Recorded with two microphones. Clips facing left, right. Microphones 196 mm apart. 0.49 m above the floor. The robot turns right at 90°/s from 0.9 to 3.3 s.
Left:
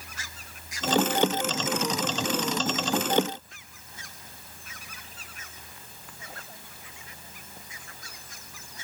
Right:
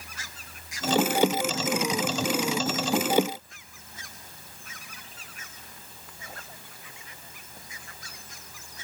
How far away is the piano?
I don't hear a piano.